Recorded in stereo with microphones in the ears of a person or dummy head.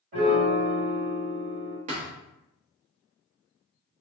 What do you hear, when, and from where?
0.1 s a piano: 50° right (ahead or behind), 1.5 m
1.9 s a thud: 40° right (ahead or behind), 1.0 m